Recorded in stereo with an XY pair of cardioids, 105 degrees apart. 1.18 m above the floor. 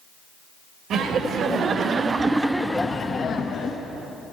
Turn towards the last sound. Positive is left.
turn(degrees=55)